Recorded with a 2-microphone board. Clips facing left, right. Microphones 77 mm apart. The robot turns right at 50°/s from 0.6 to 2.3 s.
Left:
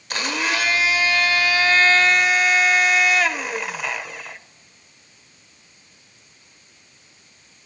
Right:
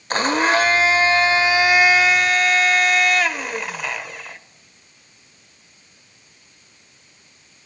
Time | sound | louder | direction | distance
0.1 | a blender | right 7 dB | 80° right | 0.6 m